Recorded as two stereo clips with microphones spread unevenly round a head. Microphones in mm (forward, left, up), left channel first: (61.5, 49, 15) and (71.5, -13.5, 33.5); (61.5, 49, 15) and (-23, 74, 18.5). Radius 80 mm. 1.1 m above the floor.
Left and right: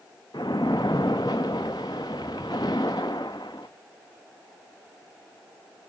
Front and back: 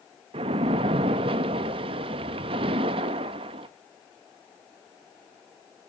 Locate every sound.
0.3 s a splash: 170° left, 0.6 m